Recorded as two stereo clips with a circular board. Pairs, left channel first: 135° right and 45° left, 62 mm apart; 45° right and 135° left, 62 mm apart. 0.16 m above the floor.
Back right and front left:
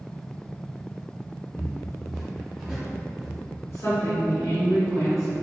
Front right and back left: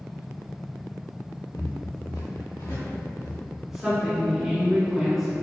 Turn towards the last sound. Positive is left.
turn(degrees=-145)